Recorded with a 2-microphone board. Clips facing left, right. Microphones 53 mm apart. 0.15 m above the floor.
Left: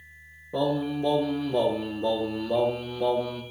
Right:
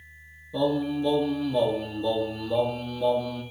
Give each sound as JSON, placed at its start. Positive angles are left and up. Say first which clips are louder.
{"t": 0.5, "sound": "singing", "louder": "right 1 dB", "side_deg": 50, "distance_m": 2.5}